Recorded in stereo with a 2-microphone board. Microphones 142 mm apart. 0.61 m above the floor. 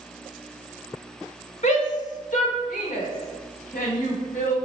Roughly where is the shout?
Left.